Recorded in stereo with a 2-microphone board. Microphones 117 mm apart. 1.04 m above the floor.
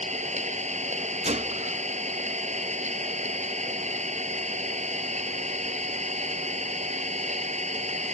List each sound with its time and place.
0.0 s an engine running: 85° right
1.2 s a gunshot: 75° right (ahead or behind)